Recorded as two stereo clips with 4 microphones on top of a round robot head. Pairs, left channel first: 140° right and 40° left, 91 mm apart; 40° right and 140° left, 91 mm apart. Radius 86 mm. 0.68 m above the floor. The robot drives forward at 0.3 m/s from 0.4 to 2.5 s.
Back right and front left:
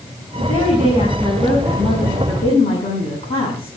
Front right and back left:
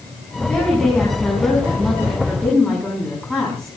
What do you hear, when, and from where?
0.4 s a woman speaking: 120° right, 6.5 m; by 3.8 s 125° right, 7 m